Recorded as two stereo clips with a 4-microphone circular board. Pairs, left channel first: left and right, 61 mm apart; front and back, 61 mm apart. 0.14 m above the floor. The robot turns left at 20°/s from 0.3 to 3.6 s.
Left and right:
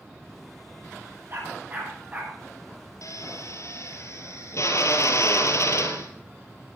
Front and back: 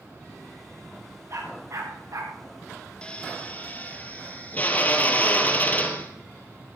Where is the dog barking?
140° right, 7 m; by 2.4 s 160° right, 7 m.